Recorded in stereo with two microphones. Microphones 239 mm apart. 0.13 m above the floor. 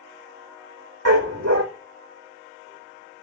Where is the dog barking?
80° right, 1.9 m.